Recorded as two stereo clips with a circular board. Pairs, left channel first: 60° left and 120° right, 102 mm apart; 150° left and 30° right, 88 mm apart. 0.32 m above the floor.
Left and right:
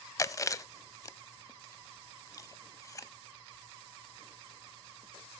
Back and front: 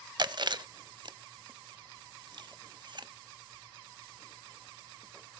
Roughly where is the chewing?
Ahead.